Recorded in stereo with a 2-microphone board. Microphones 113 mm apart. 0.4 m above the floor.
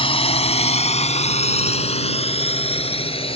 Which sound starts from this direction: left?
A drone, at 0.0 s.